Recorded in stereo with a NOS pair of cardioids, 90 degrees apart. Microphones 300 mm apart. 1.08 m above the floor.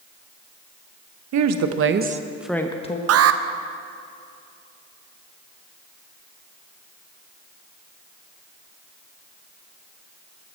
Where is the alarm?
55° right, 0.6 m.